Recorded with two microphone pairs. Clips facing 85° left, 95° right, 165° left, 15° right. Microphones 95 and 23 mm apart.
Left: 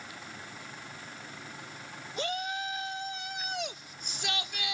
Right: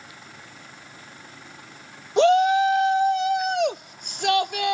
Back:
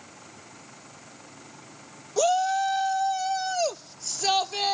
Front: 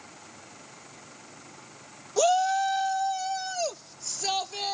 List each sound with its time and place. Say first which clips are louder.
2.2 s a shout: right 18 dB, even; 95° right; by 4.7 s 125° right